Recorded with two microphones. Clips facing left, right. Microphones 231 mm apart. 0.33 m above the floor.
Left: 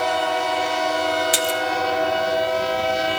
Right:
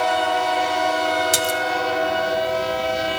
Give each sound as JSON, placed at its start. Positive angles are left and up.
{"t": 1.3, "sound": "a splash", "side_deg": -45, "distance_m": 1.1}